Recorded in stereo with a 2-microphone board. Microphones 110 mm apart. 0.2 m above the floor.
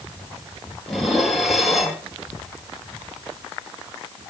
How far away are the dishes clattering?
About 3.5 m.